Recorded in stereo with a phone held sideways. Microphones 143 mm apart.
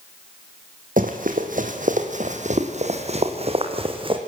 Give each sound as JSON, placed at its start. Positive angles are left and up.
{"t": 1.0, "sound": "running footsteps", "side_deg": -70, "distance_m": 2.5}